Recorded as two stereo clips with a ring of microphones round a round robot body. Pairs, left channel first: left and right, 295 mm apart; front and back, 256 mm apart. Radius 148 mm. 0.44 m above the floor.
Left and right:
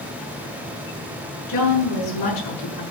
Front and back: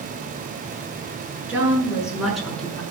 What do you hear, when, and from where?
1.5 s a woman speaking: 95° left, 7 m; by 2.8 s 85° left, 5.5 m